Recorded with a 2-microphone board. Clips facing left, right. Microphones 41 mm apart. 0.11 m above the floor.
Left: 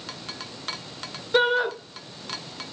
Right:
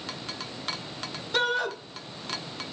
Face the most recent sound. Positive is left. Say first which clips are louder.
# left 5 dB
turn(degrees=20)  # may be behind; listen again after turning